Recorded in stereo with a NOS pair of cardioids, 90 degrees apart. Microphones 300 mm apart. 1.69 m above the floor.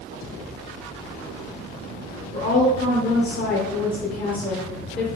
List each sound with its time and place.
2.3 s a woman speaking: 30° left, 1.3 m